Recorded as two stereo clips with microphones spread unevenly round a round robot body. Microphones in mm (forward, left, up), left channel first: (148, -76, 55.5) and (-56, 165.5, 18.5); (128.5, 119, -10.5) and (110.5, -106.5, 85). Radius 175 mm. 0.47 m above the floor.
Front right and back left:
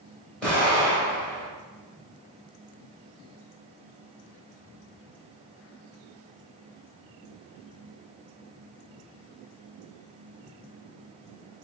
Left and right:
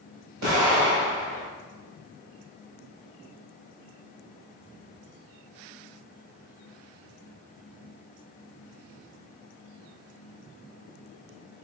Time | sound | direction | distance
0.4 | an explosion | 140° right | 1.8 m